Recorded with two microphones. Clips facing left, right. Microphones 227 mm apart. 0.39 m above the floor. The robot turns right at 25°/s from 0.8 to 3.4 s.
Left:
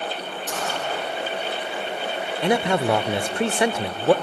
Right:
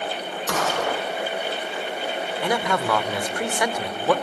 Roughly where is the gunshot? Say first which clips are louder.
Right 5 dB; right.